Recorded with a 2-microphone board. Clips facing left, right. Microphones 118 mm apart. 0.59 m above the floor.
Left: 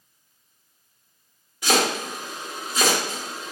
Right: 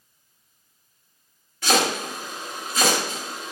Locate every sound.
1.6 s chopping: 15° left (ahead or behind), 1.3 m